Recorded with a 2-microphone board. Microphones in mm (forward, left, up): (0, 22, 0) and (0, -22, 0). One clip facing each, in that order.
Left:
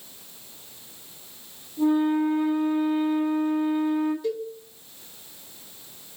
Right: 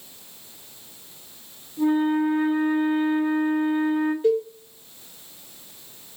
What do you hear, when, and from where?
1.8 s a flute: 20° right (ahead or behind), 2.5 m
4.2 s a cowbell: 35° right (ahead or behind), 2 m